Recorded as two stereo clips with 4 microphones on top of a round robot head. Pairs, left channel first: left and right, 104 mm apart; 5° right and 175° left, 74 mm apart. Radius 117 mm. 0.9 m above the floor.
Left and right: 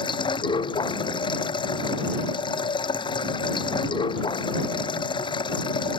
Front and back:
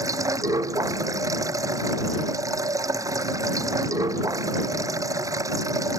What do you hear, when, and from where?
0.0 s running water: 135° left